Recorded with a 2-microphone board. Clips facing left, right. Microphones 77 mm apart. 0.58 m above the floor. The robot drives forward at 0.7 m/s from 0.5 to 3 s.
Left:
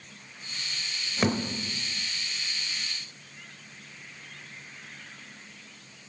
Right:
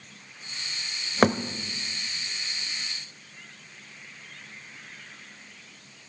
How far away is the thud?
About 0.9 m.